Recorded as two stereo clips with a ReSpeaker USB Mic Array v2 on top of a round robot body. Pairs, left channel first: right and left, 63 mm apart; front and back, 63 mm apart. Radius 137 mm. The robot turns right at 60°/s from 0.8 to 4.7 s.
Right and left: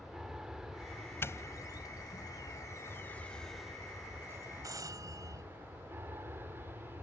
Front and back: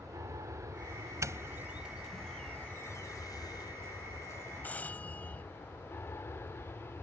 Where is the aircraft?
170° left; by 7.0 s 45° left.